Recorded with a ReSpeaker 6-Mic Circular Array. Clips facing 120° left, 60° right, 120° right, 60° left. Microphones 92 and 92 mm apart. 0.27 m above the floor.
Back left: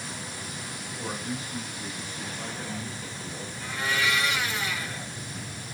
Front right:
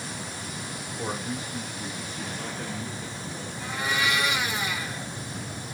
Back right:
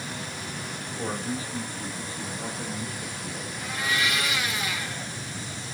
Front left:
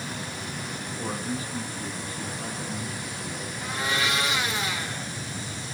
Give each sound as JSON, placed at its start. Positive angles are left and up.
{"t": 1.0, "sound": "a man speaking", "azimuth_deg": -95, "distance_m": 1.5}
{"t": 3.6, "sound": "a blender", "azimuth_deg": 10, "distance_m": 0.6}